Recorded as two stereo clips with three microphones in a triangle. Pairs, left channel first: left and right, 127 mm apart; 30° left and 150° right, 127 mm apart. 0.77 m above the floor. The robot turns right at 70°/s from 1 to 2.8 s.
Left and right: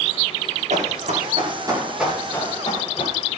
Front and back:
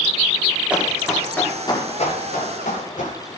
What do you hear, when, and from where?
0.7 s running footsteps: 70° right, 7 m; by 3.2 s 45° left, 9.5 m